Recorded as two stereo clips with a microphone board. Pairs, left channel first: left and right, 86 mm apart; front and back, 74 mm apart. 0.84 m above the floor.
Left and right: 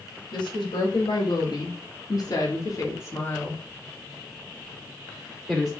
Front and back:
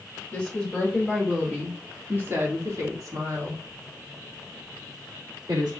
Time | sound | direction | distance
0.3 | a woman speaking | 80° left | 1.5 m